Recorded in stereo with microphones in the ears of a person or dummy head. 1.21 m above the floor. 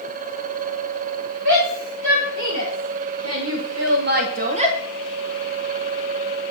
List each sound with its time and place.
1.4 s a shout: 65° right (ahead or behind), 3 m; by 4.8 s 30° right (ahead or behind), 1.4 m